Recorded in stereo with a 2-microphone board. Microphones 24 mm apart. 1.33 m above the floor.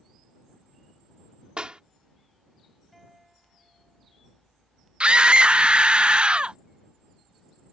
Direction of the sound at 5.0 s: 55° right (ahead or behind).